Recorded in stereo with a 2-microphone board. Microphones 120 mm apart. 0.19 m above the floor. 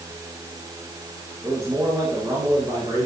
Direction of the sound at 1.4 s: 30° right (ahead or behind).